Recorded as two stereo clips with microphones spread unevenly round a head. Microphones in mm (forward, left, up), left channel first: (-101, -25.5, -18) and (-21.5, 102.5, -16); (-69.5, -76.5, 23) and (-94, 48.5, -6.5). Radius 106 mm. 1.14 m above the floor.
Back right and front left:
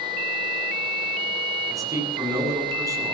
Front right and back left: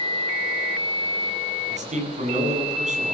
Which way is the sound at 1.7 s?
130° left.